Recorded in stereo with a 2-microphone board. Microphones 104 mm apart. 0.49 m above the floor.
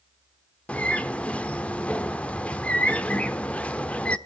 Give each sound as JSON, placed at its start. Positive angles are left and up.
{"t": 0.7, "sound": "a bird", "side_deg": 15, "distance_m": 0.8}